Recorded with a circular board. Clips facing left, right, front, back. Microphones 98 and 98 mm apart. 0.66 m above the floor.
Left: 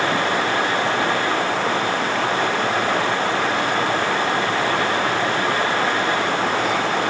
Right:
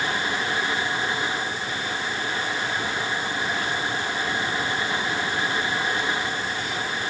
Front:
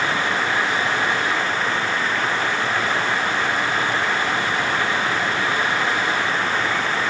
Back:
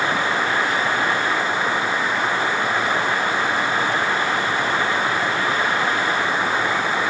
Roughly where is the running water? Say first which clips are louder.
Left 7 dB, back 1 dB; left.